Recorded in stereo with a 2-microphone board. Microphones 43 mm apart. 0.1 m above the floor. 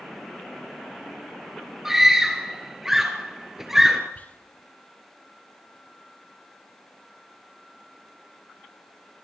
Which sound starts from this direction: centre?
A scream, at 1.9 s.